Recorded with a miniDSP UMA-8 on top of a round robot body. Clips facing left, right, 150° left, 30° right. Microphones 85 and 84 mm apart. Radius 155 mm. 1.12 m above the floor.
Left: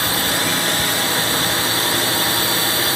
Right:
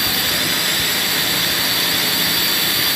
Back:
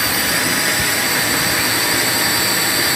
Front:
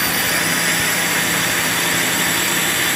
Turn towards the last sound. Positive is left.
turn(degrees=75)